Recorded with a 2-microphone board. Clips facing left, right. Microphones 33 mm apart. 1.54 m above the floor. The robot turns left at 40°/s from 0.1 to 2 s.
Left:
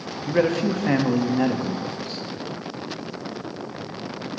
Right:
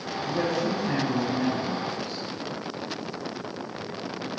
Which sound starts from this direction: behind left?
A man speaking, at 0.3 s.